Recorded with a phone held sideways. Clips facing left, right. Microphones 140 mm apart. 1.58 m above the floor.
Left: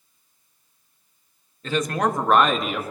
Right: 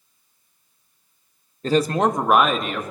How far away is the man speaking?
About 0.7 m.